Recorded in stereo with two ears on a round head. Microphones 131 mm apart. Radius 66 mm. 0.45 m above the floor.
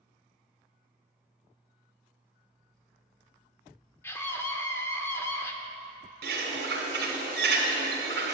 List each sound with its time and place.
4.0 s a scream: 15° left (ahead or behind), 0.8 m
6.2 s a bird: 75° right (ahead or behind), 2 m